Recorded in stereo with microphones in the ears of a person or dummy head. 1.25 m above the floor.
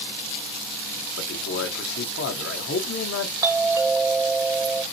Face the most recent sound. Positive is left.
turn(degrees=-15)  # may be behind; listen again after turning